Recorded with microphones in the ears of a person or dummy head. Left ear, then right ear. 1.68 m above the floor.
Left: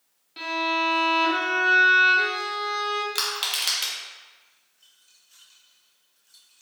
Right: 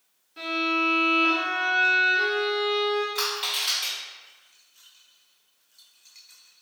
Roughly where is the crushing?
Left.